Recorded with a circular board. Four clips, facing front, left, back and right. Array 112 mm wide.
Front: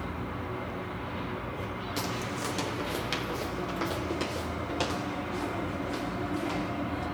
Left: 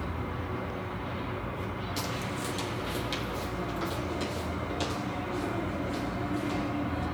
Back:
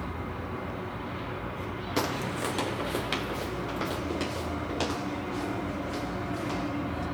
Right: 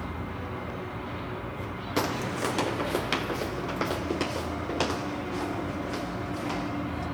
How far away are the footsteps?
About 0.5 m.